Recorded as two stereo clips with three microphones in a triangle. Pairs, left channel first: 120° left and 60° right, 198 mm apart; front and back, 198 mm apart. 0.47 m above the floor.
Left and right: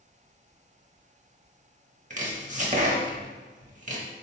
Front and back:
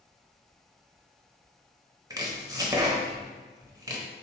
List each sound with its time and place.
2.1 s chopping: 110° right, 0.9 m